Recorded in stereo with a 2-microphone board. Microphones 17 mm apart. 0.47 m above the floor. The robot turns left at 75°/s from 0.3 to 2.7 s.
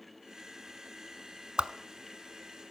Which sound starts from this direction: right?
A whoosh, at 1.6 s.